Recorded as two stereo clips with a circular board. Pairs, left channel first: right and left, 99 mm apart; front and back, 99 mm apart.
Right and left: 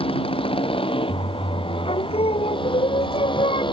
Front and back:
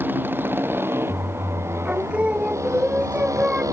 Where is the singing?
105° right.